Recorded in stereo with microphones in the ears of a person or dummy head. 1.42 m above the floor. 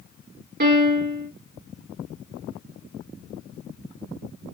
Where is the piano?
50° right (ahead or behind), 1.4 m.